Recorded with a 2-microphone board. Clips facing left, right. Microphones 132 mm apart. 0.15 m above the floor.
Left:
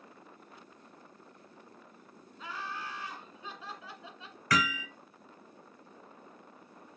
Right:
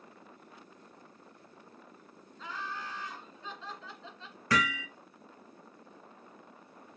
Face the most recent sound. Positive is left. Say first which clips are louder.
# even
turn(degrees=-25)  # may be behind; listen again after turning